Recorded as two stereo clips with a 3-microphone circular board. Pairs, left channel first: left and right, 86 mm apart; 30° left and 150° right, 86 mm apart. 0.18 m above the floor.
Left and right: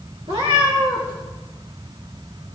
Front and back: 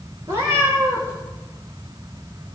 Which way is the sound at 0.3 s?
95° right.